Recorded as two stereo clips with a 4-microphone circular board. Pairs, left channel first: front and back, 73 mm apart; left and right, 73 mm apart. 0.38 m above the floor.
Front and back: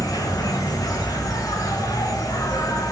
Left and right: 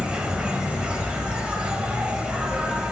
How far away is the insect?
About 1.2 m.